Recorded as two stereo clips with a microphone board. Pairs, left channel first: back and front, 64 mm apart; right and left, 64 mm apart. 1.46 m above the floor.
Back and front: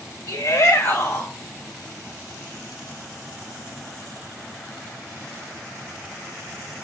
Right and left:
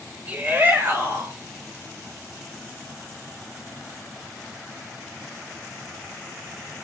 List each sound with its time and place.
0.3 s a shout: 150° left, 2 m; by 1.3 s 130° left, 3.5 m